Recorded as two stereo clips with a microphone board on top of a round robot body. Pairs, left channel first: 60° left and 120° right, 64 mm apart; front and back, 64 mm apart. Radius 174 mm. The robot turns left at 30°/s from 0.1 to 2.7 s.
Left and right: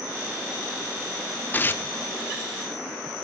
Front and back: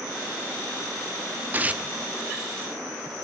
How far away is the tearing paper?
About 1.2 m.